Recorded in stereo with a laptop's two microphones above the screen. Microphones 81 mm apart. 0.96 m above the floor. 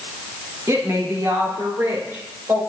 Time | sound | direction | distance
0.7 | a woman speaking | 40° right (ahead or behind) | 1.7 m